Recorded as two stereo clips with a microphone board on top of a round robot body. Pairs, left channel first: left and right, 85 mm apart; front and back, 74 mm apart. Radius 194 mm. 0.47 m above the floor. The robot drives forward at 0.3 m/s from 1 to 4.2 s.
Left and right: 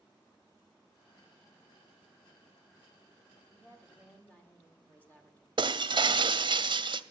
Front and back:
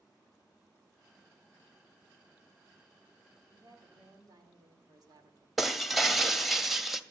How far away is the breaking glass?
About 0.8 m.